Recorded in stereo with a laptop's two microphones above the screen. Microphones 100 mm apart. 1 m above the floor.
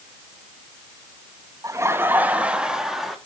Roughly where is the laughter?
Right.